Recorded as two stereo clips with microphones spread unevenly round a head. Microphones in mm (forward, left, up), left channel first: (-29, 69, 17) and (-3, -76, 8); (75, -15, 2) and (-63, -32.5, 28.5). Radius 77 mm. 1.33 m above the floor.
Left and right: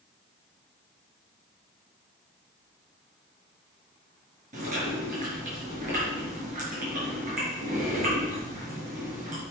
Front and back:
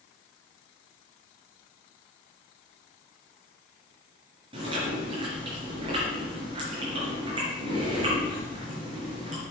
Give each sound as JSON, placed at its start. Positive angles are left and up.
{"t": 4.5, "sound": "chewing", "azimuth_deg": -120, "distance_m": 5.0}